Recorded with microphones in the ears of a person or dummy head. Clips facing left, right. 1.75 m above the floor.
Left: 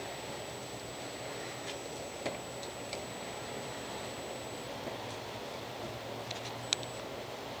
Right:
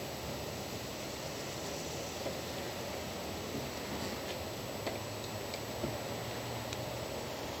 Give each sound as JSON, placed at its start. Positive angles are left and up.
{"t": 0.0, "sound": "an insect", "side_deg": -55, "distance_m": 1.1}